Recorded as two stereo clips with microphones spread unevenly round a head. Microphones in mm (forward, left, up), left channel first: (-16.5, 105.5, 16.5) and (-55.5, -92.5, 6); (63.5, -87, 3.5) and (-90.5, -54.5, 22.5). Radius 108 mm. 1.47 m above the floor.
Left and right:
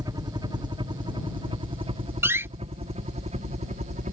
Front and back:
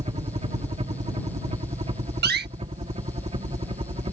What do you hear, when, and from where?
0.0 s a helicopter: 160° right; by 4.1 s 145° right
2.2 s a door slam: straight behind